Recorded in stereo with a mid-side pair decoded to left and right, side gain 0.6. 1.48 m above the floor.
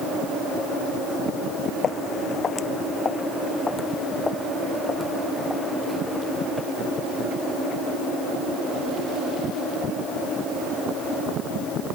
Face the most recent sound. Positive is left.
turn(degrees=5)